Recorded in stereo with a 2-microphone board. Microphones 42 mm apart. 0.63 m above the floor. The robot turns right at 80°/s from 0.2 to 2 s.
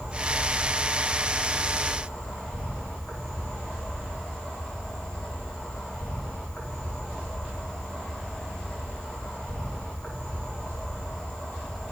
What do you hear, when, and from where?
0.0 s an insect: 130° right, 8 m; by 11.9 s 15° left, 8 m